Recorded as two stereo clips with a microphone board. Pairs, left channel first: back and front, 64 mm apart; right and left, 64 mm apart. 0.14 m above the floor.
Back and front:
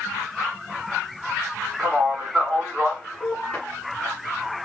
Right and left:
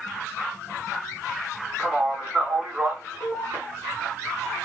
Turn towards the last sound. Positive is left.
turn(degrees=120)